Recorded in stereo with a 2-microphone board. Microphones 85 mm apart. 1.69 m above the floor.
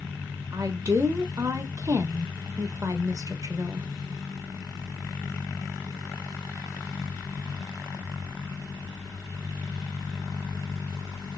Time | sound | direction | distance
0.5 | a woman speaking | 40° right (ahead or behind) | 0.7 m